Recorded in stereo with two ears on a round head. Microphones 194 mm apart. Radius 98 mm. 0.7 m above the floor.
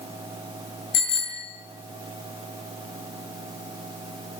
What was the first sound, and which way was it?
A bicycle bell, 50° left (ahead or behind).